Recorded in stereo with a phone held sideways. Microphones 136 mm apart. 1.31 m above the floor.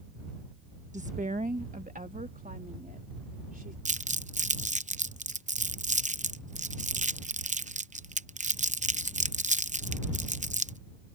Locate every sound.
0.9 s a woman speaking: 60° right (ahead or behind); by 3.8 s 75° right (ahead or behind)
3.9 s crumpling: 60° right (ahead or behind)